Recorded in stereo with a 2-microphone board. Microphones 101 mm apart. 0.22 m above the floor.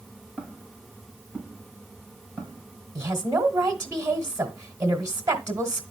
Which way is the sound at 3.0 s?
25° right (ahead or behind).